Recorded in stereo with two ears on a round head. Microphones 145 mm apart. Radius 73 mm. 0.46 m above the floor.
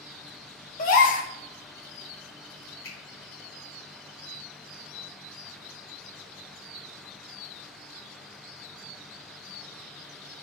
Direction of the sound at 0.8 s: 55° left (ahead or behind).